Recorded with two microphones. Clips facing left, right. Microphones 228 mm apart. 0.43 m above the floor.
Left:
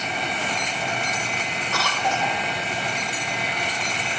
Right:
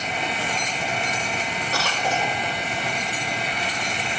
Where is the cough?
35° right (ahead or behind), 2 m.